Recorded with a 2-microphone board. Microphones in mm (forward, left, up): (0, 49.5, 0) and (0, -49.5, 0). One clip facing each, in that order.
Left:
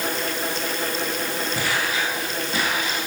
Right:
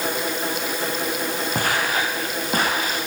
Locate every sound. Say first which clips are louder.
1.6 s footsteps: right 3 dB; 45° right (ahead or behind), 6.5 m; by 3.0 s 40° right (ahead or behind), 7 m